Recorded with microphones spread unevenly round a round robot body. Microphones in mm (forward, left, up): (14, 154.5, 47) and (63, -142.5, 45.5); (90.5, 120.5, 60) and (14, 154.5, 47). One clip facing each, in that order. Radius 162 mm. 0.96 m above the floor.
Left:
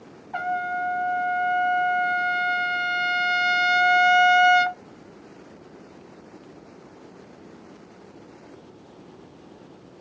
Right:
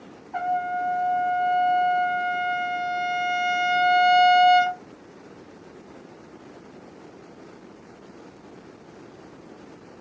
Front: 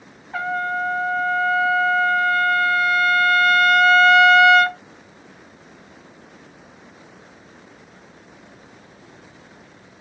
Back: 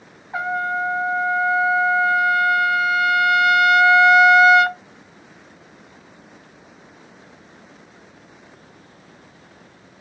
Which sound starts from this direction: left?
A trumpet, at 0.3 s.